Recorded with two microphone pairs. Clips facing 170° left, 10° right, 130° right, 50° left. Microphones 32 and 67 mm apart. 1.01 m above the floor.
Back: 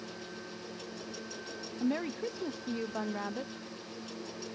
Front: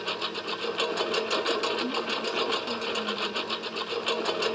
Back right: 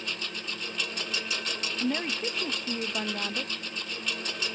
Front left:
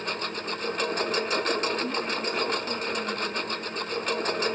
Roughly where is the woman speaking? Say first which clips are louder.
Front 4 dB, front left 1 dB; behind.